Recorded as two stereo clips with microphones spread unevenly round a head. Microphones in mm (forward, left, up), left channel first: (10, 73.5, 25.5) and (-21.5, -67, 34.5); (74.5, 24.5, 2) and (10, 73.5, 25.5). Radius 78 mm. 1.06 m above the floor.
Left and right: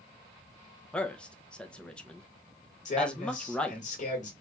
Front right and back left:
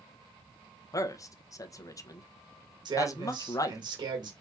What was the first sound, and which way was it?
A man speaking, 5° right.